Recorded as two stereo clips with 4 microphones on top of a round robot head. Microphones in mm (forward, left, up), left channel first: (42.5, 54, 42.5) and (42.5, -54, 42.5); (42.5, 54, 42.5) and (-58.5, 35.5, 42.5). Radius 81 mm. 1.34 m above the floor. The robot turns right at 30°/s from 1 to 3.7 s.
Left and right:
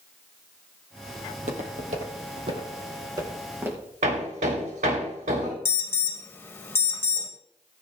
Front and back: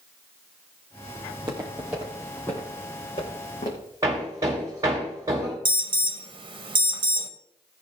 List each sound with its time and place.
1.3 s footsteps: 120° right, 2.5 m; by 3.9 s 20° right, 4.5 m
4.0 s hammering: 105° right, 3 m
5.7 s an alarm: 160° left, 1.3 m